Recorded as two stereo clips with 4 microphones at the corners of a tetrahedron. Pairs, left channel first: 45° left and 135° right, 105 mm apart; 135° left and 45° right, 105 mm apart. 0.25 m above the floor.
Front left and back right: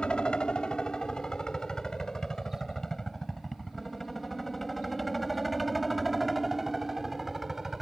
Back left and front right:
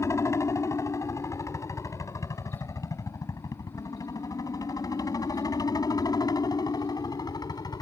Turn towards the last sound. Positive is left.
turn(degrees=140)